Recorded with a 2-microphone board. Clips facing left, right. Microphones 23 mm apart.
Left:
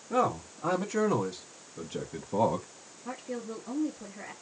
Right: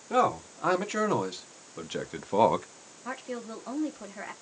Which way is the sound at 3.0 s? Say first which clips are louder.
Right 1 dB; 45° right (ahead or behind).